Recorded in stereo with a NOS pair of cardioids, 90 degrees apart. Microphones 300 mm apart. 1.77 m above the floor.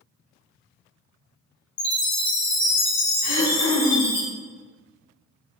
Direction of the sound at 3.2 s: 35° left.